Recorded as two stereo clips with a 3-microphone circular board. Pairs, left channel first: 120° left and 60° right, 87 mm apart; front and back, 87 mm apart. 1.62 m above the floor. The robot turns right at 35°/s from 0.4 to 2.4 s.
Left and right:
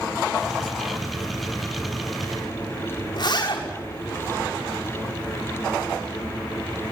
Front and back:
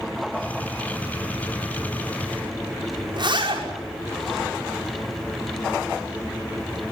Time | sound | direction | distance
3.1 | a zipper | 155° left | 6 m